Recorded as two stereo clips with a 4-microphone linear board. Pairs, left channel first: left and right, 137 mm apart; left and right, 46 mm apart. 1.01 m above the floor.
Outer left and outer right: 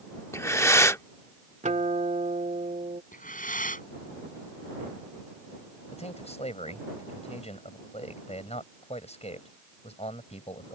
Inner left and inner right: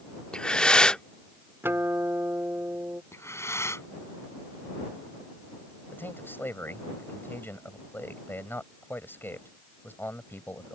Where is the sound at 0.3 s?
20° left (ahead or behind).